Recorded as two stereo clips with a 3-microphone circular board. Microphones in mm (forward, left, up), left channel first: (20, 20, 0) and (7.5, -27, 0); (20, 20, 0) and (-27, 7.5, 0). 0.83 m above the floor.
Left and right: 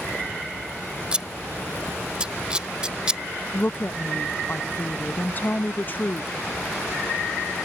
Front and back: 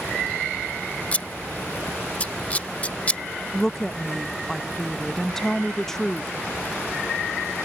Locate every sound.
1.1 s scissors: 40° right
3.5 s a woman speaking: 95° left